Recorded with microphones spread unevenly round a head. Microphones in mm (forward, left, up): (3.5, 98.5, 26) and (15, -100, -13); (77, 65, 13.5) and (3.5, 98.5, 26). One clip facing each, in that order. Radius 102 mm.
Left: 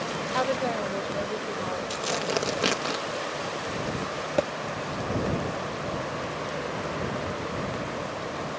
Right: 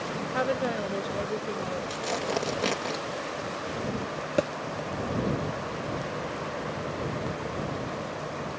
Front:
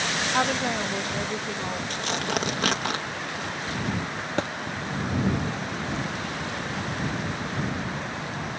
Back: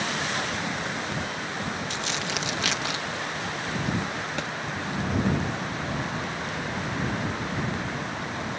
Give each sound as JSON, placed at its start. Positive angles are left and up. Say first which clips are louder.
{"t": 0.3, "sound": "a woman speaking", "louder": "left 1 dB, front 5 dB", "azimuth_deg": 0}
{"t": 1.9, "sound": "tearing paper", "louder": "left 2 dB, front 3 dB", "azimuth_deg": 15}
{"t": 4.4, "sound": "a thud", "louder": "even, front 8 dB", "azimuth_deg": 0}